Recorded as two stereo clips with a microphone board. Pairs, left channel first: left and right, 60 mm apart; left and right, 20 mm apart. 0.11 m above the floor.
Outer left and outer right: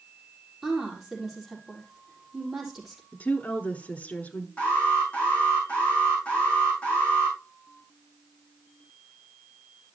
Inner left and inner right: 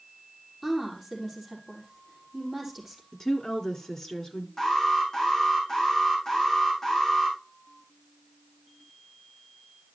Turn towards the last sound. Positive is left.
turn(degrees=20)  # may be behind; listen again after turning